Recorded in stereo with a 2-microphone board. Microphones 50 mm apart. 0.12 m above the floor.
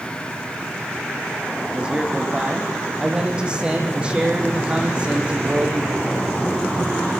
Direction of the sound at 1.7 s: 20° right (ahead or behind).